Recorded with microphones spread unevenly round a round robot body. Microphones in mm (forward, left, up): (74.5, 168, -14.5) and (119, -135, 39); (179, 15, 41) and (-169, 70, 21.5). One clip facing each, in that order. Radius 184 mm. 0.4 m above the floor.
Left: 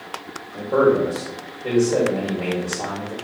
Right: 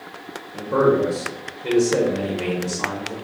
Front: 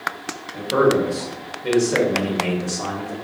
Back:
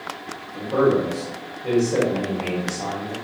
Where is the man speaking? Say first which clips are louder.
Left 1 dB, front 1 dB; 5° left, 0.9 m.